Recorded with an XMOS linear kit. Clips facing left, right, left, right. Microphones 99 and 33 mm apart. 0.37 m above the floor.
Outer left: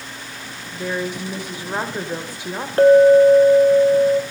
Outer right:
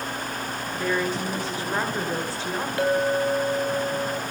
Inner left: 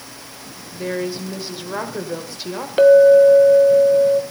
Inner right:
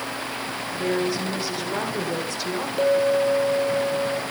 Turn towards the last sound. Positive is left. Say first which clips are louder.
# outer left 14 dB, inner left 12 dB
turn(degrees=40)  # may be behind; listen again after turning